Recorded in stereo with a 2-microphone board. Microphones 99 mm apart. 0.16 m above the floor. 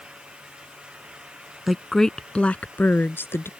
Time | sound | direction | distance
1.7 | a woman speaking | centre (ahead or behind) | ?